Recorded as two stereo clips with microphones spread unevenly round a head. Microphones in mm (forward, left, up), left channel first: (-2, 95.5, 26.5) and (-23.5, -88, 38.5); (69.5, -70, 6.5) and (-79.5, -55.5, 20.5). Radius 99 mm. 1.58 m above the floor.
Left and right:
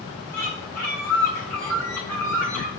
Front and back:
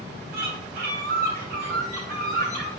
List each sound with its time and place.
0.3 s a bird: 165° left, 3 m